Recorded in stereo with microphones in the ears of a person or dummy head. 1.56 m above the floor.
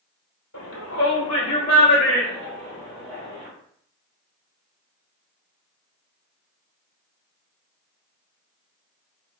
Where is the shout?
75° left (ahead or behind), 0.7 m; by 3.5 s 15° left (ahead or behind), 1.9 m.